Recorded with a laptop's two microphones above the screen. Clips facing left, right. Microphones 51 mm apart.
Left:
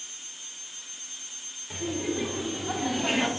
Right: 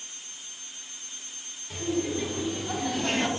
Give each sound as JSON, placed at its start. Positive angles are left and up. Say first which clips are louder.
{"t": 1.7, "sound": "laughter", "louder": "right 2 dB", "side_deg": 15, "distance_m": 2.5}